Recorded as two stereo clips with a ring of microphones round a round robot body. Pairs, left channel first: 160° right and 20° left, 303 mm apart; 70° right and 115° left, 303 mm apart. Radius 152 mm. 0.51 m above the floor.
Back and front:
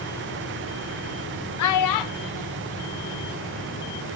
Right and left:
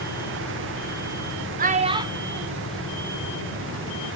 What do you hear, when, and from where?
1.6 s a child speaking: 170° left, 0.8 m; by 3.9 s 145° right, 2.5 m